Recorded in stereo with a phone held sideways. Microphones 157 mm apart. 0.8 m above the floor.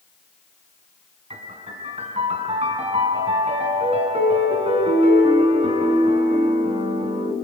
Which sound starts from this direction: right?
A piano, at 1.3 s.